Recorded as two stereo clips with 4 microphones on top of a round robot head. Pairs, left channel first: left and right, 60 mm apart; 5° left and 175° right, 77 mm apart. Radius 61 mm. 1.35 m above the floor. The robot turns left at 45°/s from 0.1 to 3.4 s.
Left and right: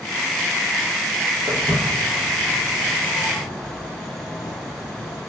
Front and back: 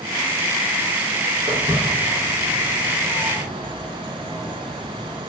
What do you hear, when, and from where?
1.5 s footsteps: 120° right, 3.5 m; by 5.2 s 90° left, 2 m